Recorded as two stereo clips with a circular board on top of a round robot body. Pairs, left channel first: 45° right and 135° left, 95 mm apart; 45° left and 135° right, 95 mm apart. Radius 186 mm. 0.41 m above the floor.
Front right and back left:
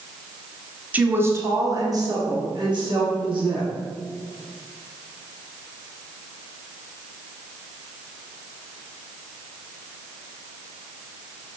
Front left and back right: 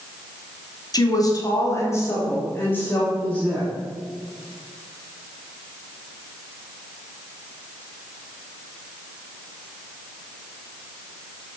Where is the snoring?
I don't hear snoring.